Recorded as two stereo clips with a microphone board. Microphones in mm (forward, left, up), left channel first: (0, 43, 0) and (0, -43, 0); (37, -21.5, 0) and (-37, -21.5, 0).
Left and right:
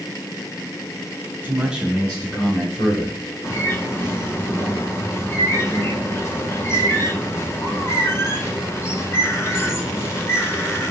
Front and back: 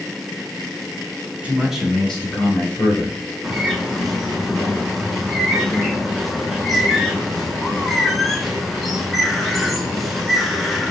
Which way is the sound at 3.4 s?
90° left.